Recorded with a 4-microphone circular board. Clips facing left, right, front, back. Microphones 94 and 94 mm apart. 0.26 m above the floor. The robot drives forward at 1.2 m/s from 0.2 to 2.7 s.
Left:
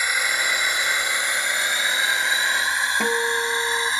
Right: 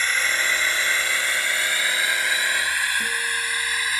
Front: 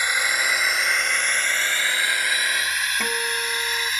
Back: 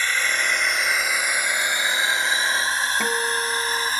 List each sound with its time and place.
0.0 s a drone: 40° left; by 4.0 s 145° left
3.0 s a guitar: 100° left